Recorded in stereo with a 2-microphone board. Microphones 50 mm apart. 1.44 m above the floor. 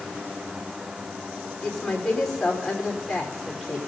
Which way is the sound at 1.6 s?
10° left (ahead or behind).